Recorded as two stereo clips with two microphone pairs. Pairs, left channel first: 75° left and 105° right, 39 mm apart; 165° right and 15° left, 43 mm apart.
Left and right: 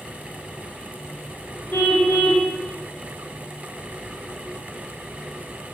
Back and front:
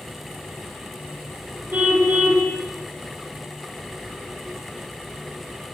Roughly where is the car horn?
Ahead left.